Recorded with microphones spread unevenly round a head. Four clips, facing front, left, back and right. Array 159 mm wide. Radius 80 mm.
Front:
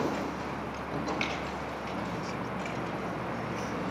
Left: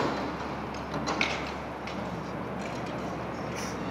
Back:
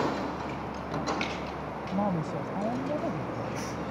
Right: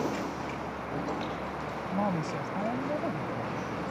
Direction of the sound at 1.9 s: 145° right.